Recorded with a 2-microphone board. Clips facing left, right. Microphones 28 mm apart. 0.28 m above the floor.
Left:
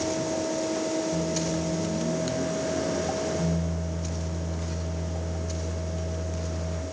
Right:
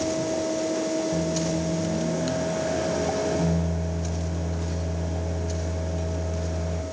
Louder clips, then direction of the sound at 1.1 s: Right 2 dB; 35° right (ahead or behind).